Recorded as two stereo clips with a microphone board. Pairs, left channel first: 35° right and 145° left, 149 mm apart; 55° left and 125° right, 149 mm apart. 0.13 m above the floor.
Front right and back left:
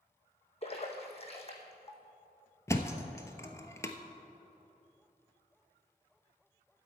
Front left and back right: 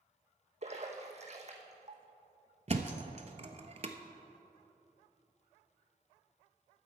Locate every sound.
0.6 s a splash: 80° right, 1.3 m
2.7 s a thud: 100° right, 0.7 m